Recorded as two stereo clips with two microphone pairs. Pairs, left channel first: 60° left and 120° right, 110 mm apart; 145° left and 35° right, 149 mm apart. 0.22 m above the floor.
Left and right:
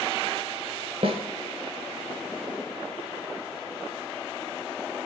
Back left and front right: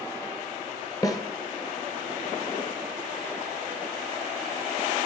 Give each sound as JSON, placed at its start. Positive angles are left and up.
{"t": 1.0, "sound": "a snare drum", "azimuth_deg": -150, "distance_m": 0.8}